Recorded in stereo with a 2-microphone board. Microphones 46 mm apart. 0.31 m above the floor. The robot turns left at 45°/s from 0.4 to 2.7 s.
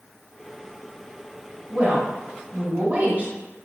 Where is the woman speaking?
50° right, 1.2 m; by 3.3 s 95° right, 1.2 m.